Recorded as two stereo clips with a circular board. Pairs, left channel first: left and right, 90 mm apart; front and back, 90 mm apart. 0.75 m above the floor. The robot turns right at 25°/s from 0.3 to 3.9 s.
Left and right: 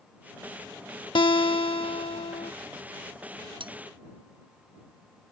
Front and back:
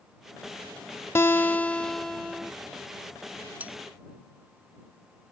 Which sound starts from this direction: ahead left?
A guitar, at 1.1 s.